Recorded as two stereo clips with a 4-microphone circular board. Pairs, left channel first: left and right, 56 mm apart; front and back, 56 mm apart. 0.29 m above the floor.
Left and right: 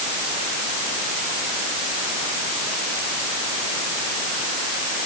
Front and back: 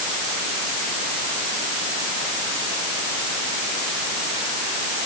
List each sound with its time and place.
Only background noise.